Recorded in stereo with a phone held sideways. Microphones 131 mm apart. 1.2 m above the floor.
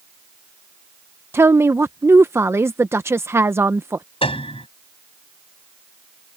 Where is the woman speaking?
20° right (ahead or behind).